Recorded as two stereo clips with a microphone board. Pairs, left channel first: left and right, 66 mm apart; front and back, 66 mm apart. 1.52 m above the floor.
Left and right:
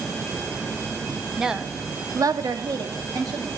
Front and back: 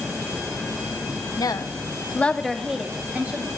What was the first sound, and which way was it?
A woman speaking, 5° right.